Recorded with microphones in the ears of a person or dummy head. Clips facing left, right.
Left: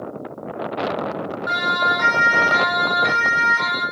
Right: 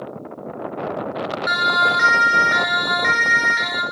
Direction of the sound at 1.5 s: 30° right (ahead or behind).